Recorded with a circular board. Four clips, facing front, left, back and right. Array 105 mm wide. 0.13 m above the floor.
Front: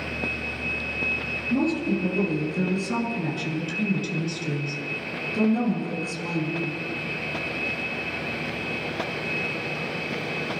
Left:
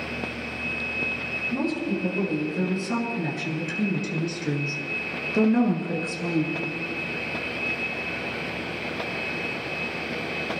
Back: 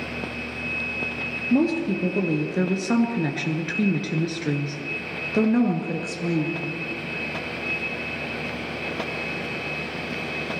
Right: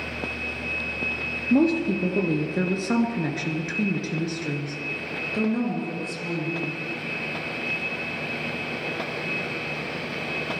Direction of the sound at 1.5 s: 125° right.